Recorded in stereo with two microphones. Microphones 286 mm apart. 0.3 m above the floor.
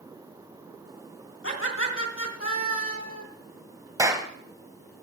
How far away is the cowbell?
I don't hear a cowbell.